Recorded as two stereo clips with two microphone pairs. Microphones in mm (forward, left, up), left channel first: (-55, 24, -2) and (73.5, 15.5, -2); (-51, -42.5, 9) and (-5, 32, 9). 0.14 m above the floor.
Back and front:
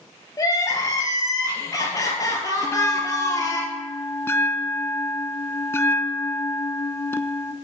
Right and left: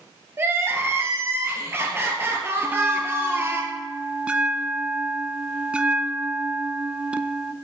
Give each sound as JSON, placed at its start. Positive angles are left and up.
{"t": 0.4, "sound": "crying", "azimuth_deg": 115, "distance_m": 2.5}
{"t": 2.6, "sound": "a bell", "azimuth_deg": 125, "distance_m": 0.6}